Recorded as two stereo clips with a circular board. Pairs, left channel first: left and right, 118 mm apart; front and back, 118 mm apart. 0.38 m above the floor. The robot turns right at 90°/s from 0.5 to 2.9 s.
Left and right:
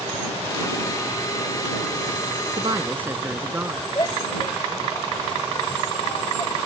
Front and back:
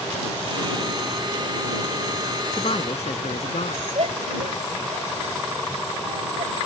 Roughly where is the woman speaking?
Ahead right.